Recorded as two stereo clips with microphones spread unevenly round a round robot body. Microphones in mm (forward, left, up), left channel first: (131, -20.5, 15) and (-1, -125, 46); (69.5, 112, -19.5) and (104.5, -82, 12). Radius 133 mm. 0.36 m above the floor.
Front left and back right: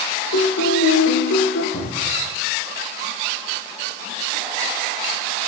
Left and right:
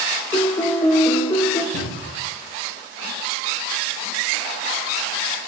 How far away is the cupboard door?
About 9.5 m.